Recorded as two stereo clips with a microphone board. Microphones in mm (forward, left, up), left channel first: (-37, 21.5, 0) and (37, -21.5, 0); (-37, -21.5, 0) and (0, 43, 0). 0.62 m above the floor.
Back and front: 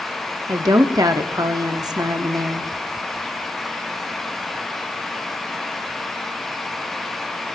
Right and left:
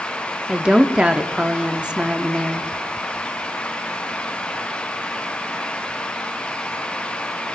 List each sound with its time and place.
0.5 s a woman speaking: 15° right, 0.8 m